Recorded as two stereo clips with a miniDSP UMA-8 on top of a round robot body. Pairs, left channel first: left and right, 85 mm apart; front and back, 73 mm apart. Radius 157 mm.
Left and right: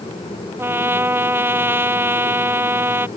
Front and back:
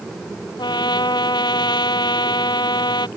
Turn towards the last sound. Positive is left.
turn(degrees=-25)